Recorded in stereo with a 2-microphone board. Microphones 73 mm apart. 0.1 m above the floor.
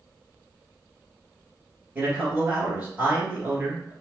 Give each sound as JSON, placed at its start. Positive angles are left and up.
{"t": 1.9, "sound": "a man speaking", "side_deg": -20, "distance_m": 1.5}